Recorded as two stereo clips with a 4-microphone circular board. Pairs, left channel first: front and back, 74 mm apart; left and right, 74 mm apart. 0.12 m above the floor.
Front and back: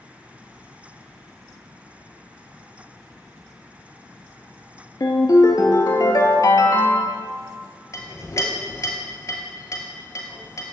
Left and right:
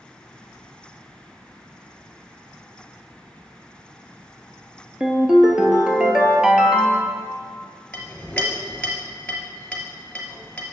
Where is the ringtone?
10° right, 0.9 m.